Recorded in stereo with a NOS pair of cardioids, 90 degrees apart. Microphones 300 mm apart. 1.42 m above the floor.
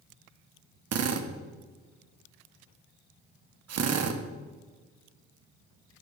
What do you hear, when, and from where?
0.9 s a drill: 60° right, 1.8 m